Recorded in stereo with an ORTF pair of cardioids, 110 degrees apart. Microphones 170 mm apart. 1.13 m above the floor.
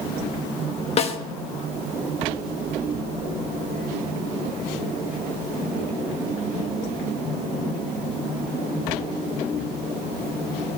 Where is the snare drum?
40° left, 1.1 m.